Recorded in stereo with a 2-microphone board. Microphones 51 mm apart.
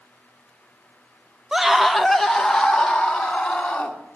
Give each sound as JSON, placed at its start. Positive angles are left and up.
{"t": 1.5, "sound": "a scream", "side_deg": -10, "distance_m": 0.6}